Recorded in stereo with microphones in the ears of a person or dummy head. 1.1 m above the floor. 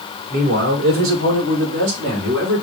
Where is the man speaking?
55° right (ahead or behind), 1.2 m; by 2.6 s 60° right (ahead or behind), 2.5 m.